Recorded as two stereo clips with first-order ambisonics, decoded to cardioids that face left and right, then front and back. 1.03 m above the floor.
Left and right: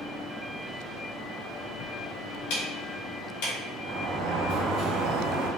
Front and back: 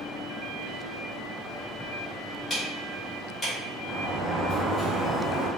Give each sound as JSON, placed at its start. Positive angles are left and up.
{"t": 2.5, "sound": "ticking", "azimuth_deg": 75, "distance_m": 2.0}
{"t": 3.8, "sound": "a sliding door", "azimuth_deg": -105, "distance_m": 1.6}